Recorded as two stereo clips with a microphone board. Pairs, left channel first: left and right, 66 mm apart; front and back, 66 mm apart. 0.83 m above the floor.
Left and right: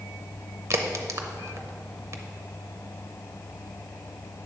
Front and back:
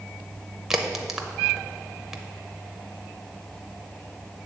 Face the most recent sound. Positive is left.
turn(degrees=-95)